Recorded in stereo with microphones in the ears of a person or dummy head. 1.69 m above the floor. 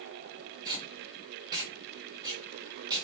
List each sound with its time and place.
0.7 s tape being pulled: 25° right (ahead or behind), 1.1 m